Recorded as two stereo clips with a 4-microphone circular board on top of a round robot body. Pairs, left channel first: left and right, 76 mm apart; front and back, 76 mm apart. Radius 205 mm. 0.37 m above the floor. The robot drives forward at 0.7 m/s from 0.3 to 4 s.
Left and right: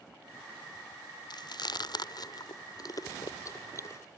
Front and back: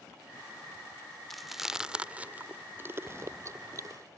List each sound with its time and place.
1.3 s chewing: 90° left; by 4.2 s 140° left